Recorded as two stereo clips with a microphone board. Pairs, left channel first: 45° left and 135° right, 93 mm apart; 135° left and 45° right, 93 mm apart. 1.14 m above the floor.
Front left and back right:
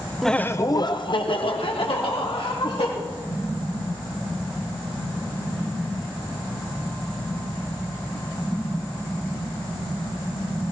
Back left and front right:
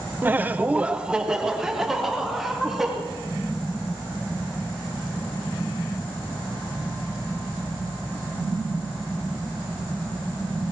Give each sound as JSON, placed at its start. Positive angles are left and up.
{"t": 0.2, "sound": "laughter", "azimuth_deg": -45, "distance_m": 0.6}